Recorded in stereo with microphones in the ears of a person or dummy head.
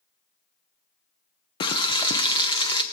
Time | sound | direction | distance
1.6 | frying | 30° left (ahead or behind) | 0.7 m